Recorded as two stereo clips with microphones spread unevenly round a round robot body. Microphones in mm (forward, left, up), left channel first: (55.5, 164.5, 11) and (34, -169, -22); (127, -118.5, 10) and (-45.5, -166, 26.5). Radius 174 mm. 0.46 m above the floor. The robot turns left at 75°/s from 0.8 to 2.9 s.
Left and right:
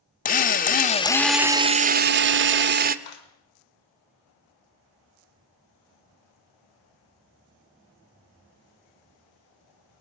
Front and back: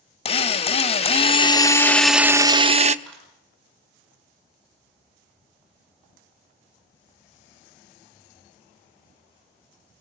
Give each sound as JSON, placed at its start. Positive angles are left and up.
{"t": 0.2, "sound": "a drill", "azimuth_deg": 25, "distance_m": 0.9}
{"t": 3.0, "sound": "a clap", "azimuth_deg": 105, "distance_m": 4.5}